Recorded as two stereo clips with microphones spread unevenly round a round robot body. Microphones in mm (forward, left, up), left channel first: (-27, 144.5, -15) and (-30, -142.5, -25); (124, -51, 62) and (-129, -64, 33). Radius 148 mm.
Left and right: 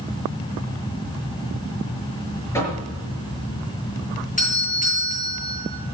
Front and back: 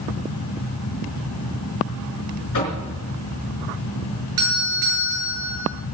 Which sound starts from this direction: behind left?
A doorbell, at 4.4 s.